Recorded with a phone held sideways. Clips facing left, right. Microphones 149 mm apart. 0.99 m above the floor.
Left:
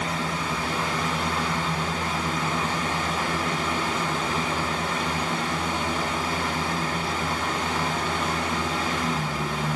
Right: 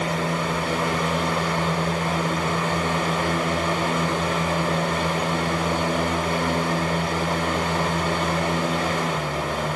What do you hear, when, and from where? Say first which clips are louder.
0.0 s a fan: right 4 dB; 60° right (ahead or behind), 1.0 m